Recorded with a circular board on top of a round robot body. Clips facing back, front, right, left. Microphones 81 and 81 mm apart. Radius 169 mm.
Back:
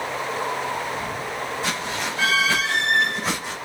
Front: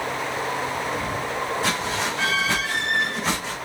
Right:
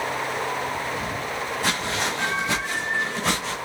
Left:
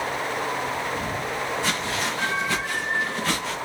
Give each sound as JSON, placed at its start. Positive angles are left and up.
{"t": 1.6, "sound": "footsteps", "azimuth_deg": -50, "distance_m": 2.5}